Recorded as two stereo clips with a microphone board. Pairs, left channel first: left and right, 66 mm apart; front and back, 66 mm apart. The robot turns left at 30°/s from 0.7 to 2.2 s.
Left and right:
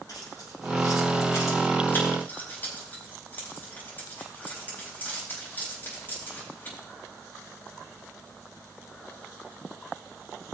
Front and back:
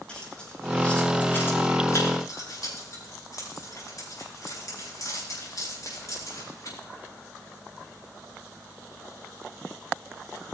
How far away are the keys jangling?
About 4 m.